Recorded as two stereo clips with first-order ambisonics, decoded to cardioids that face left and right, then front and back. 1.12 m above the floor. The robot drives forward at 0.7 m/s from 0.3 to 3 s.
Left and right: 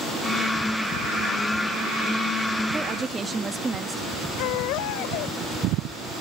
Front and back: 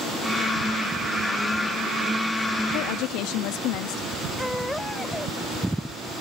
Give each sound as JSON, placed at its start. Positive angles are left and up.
{"t": 2.7, "sound": "a woman speaking", "azimuth_deg": -15}
{"t": 4.4, "sound": "a baby crying", "azimuth_deg": 80}